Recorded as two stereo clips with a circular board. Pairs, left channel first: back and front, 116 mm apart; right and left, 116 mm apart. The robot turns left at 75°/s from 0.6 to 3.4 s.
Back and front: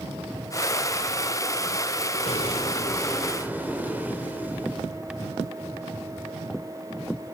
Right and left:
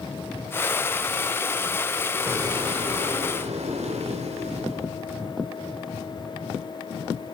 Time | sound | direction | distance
2.2 | an explosion | 160° left | 1.9 m